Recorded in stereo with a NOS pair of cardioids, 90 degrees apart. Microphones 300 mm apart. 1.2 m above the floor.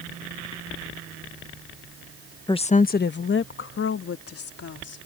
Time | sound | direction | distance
2.5 | a woman speaking | 15° left | ?